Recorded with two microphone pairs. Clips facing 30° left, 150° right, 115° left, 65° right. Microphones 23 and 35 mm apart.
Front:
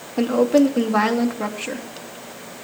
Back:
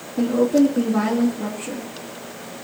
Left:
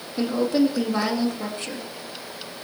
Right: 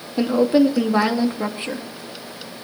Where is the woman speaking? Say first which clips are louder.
Front 1 dB, right 5 dB; 5° right, 2.5 m.